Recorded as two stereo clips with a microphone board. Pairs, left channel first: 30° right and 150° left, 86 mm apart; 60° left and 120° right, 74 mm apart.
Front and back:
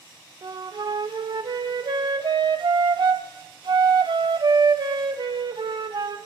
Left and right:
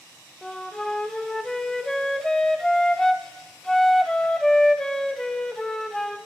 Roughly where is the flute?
Behind left.